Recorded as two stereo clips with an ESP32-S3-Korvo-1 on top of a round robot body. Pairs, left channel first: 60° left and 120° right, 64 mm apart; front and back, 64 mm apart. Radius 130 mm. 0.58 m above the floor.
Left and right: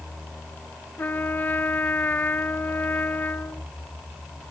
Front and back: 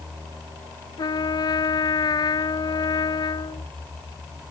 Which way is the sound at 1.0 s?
5° right.